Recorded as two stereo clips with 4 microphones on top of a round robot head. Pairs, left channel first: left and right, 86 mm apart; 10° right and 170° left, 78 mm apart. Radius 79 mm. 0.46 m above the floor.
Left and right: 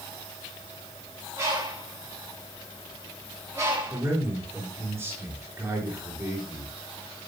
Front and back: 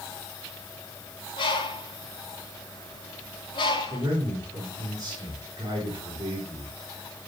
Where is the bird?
30° right, 5 m.